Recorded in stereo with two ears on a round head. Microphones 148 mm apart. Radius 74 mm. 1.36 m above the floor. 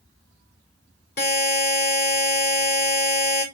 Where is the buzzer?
60° left (ahead or behind), 3.5 m.